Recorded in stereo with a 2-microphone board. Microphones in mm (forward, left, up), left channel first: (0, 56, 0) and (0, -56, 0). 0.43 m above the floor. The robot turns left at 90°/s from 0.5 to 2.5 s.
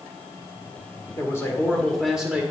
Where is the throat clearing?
No throat clearing in this recording.